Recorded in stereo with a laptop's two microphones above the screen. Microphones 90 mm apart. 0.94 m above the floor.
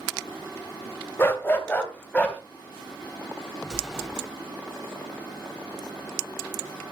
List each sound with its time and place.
1.2 s a dog barking: 25° left (ahead or behind), 2 m; by 2.4 s 15° left (ahead or behind), 3 m
3.6 s an explosion: 5° right (ahead or behind), 3.5 m